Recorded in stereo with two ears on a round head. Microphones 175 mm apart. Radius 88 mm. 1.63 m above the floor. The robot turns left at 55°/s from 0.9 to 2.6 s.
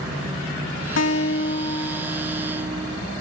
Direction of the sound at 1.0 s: 70° left.